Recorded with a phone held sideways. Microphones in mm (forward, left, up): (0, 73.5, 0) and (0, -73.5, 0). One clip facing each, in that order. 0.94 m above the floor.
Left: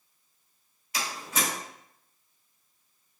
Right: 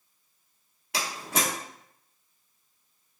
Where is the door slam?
80° right, 1.3 m.